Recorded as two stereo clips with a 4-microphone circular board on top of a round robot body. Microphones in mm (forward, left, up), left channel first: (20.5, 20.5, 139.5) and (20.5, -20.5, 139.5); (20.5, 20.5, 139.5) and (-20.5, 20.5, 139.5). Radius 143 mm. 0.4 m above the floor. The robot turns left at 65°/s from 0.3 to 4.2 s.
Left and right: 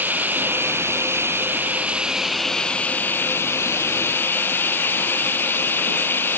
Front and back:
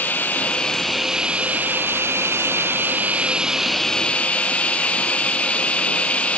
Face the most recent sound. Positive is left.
turn(degrees=60)